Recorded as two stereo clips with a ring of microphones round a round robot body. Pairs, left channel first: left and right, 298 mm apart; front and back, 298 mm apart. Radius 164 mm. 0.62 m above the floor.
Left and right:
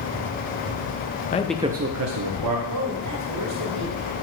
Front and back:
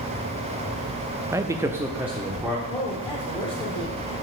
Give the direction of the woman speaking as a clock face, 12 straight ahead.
2 o'clock.